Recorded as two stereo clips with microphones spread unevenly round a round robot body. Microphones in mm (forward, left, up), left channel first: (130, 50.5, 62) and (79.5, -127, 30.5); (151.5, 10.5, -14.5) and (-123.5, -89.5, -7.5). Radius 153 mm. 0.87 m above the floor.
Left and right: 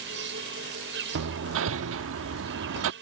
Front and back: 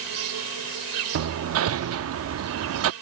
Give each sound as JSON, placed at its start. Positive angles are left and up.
{"t": 0.0, "sound": "an insect", "azimuth_deg": -145}
{"t": 1.1, "sound": "hammering", "azimuth_deg": -120}